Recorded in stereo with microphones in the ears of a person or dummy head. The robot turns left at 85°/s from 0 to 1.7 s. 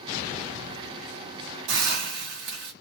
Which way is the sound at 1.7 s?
75° right (ahead or behind).